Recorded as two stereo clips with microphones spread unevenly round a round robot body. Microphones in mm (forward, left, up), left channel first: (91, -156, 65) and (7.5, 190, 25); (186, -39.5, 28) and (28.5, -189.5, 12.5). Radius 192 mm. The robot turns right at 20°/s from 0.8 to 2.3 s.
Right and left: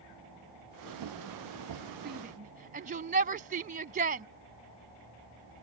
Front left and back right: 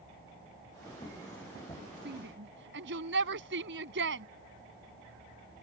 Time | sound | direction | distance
2.0 | a shout | 165° left | ?